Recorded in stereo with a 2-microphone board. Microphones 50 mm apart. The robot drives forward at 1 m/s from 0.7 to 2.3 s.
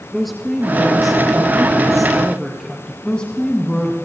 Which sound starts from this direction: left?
A woman speaking, at 3.0 s.